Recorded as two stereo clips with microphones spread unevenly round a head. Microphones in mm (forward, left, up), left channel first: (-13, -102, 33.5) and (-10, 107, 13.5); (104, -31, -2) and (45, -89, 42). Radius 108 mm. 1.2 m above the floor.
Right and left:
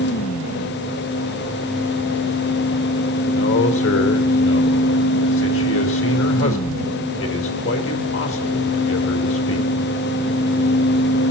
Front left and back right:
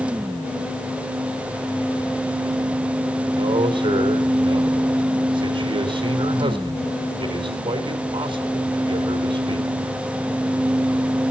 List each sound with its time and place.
3.3 s a man speaking: 120° right, 3.5 m